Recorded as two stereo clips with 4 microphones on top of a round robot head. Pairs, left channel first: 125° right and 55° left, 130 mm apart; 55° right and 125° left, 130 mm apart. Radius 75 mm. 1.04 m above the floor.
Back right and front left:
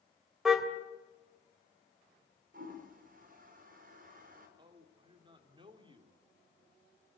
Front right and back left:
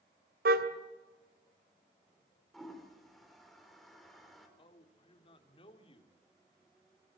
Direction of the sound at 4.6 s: Straight ahead.